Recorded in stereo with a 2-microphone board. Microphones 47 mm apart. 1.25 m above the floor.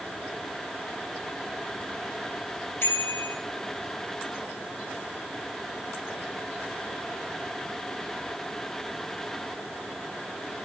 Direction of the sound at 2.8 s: 55° left (ahead or behind).